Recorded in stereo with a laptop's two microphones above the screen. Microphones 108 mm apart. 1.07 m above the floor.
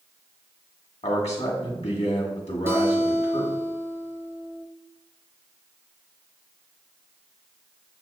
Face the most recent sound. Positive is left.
turn(degrees=-20)  # may be behind; listen again after turning